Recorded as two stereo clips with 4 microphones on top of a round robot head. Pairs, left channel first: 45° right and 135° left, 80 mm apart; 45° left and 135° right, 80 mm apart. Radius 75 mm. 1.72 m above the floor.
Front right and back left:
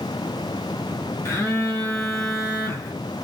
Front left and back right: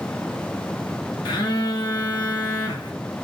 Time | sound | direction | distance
1.2 | a phone buzzing | 15° left | 1.4 m